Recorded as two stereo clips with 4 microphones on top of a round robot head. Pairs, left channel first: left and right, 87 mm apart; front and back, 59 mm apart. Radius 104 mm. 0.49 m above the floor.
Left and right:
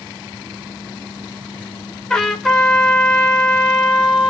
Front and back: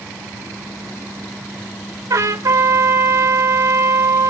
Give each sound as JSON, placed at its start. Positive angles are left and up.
{"t": 2.1, "sound": "a trumpet", "azimuth_deg": 170, "distance_m": 2.5}